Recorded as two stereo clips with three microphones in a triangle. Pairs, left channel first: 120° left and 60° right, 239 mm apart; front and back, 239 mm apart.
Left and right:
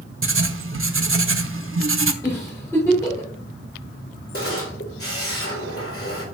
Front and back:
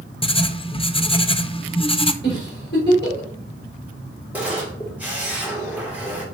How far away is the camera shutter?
About 2.5 m.